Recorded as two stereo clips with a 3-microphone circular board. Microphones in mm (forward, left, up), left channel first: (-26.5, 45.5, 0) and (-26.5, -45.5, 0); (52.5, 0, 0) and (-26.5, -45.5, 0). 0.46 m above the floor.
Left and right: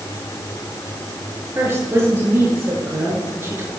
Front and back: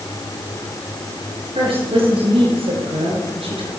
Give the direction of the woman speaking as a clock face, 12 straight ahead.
5 o'clock.